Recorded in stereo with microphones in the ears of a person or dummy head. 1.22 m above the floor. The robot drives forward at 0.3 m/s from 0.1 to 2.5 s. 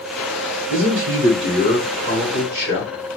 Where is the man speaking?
60° right (ahead or behind), 1.0 m; by 2.9 s 50° right (ahead or behind), 1.2 m.